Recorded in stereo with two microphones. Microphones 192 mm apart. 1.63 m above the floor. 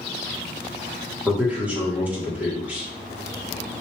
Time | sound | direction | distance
1.2 | a man speaking | 10° right (ahead or behind) | 1.5 m